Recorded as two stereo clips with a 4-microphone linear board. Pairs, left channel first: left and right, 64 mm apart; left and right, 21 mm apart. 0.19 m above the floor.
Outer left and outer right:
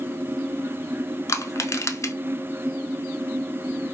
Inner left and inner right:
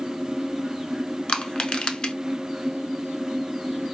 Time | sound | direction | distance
1.3 | crushing | 55° left (ahead or behind) | 0.6 m